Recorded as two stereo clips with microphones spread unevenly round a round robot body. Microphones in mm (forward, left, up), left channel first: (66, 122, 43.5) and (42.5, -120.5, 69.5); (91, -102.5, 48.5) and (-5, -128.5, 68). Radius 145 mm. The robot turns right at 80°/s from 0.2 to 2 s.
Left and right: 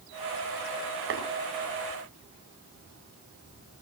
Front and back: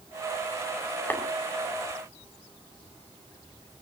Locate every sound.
1.1 s tapping: 60° right, 4.5 m; by 1.2 s 50° right, 4.5 m